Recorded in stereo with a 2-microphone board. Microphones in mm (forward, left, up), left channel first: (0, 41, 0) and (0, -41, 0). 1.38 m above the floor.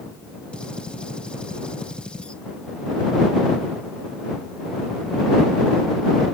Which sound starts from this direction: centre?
A gunshot, at 0.5 s.